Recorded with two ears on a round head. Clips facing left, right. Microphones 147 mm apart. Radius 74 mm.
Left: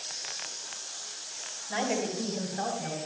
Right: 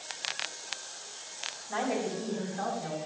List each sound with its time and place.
1.7 s a woman speaking: 35° left (ahead or behind), 4.5 m; by 3.0 s 45° left (ahead or behind), 3.5 m